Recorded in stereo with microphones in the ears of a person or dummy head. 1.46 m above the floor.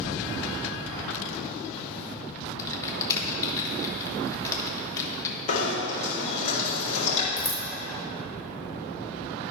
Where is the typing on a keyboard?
25° left (ahead or behind), 1.2 m.